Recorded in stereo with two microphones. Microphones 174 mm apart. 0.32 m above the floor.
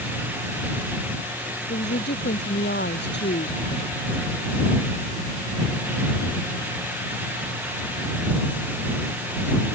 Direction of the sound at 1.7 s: 80° left.